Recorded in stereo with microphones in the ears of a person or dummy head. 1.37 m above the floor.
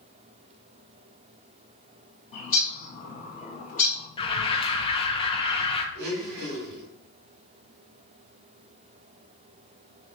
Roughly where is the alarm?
Left.